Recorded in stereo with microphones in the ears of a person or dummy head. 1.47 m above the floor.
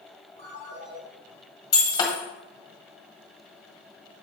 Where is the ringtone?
70° right (ahead or behind), 3.5 m.